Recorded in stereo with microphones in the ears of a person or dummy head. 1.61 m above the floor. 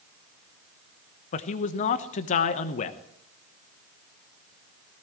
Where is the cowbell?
I don't hear a cowbell.